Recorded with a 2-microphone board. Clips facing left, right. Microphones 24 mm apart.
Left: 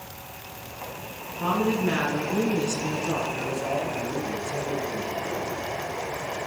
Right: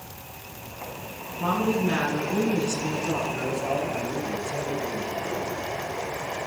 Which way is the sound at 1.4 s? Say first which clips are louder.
Even; 20° left (ahead or behind).